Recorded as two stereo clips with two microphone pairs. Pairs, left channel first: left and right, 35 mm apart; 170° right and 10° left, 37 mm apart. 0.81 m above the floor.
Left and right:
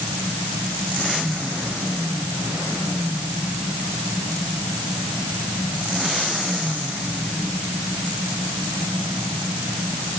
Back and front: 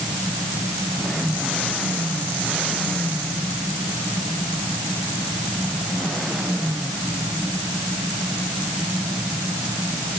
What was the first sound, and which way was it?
Only background noise.